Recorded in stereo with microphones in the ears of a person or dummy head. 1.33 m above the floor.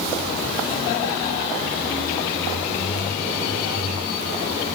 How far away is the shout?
I don't hear a shout.